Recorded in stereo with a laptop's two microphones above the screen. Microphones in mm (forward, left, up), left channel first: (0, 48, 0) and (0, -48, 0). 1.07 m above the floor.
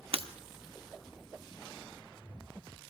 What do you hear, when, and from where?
0.1 s breaking glass: 70° right (ahead or behind), 0.9 m